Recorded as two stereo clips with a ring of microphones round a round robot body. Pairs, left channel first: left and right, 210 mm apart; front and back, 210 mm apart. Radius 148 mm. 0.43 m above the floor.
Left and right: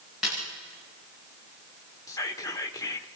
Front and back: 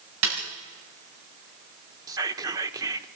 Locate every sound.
0.2 s a snare drum: straight behind, 8 m
2.1 s whispering: 140° left, 1.0 m